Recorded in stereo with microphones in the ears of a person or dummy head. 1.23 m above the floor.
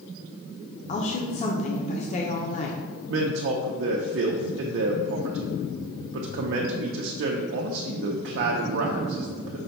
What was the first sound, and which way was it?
A woman speaking, 30° left (ahead or behind).